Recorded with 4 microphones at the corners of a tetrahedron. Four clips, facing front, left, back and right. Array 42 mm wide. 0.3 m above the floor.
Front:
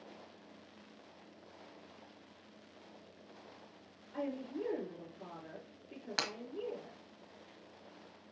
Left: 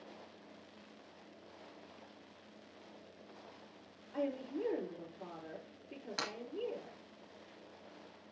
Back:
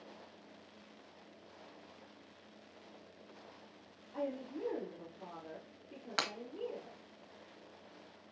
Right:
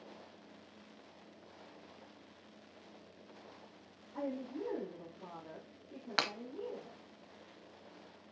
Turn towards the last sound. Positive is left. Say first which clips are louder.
# right 6 dB, back 1 dB
turn(degrees=-105)